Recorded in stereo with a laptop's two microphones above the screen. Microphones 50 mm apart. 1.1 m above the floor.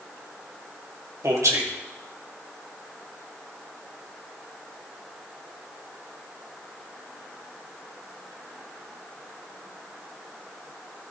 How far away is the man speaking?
About 2 m.